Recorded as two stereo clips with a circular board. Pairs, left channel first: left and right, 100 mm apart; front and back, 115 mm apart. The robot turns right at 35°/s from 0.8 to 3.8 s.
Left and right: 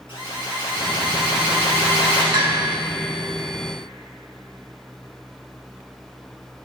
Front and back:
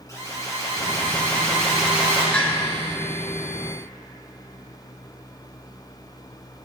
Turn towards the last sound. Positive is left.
turn(degrees=-25)